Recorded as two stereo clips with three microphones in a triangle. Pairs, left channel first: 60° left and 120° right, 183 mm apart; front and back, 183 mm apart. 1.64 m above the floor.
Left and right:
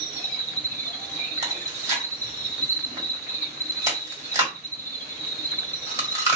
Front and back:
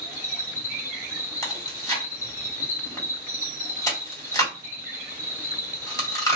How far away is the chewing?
About 1.7 m.